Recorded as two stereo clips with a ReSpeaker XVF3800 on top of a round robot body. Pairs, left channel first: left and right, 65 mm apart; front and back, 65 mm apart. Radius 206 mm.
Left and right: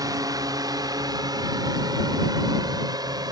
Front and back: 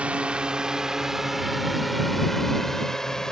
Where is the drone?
110° right; by 3.3 s 80° right.